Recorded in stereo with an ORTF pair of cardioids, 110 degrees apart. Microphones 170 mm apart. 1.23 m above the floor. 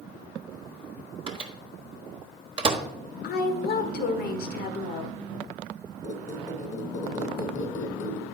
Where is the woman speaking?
65° left, 1.1 m.